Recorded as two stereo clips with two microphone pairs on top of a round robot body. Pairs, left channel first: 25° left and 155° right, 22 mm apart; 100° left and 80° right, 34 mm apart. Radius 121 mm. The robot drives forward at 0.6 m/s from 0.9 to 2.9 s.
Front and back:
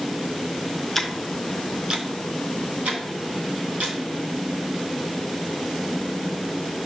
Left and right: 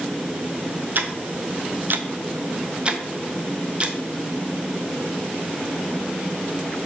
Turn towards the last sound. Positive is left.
turn(degrees=-135)